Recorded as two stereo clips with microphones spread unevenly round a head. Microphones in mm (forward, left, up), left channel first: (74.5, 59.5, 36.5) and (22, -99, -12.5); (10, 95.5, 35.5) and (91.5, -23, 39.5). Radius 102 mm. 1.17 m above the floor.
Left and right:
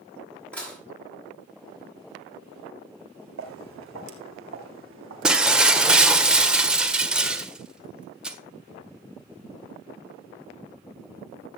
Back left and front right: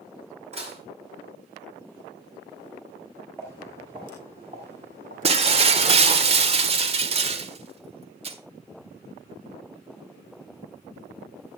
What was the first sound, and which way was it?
Dishes clattering, 10° right.